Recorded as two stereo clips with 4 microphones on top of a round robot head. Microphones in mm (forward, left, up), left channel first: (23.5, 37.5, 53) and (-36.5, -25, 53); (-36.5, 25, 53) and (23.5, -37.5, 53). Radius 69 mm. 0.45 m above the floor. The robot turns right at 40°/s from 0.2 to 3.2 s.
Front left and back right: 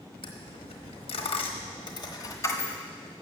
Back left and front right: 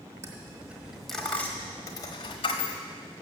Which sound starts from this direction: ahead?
A dropped coin, at 0.2 s.